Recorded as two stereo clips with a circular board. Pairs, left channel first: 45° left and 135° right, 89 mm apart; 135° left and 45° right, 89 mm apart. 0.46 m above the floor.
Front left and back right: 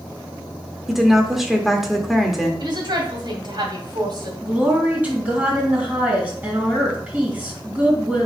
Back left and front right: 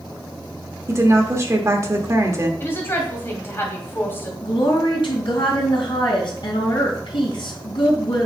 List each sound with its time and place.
0.9 s a woman speaking: 50° right, 1.2 m
2.6 s a woman speaking: 165° right, 2.5 m
4.4 s a woman speaking: 155° left, 3.5 m